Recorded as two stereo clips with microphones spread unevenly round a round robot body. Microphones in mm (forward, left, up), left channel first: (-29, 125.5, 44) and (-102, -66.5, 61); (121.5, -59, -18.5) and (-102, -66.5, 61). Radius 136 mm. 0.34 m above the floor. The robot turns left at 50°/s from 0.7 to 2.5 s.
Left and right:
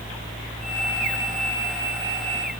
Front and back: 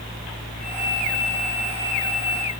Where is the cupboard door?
I don't hear a cupboard door.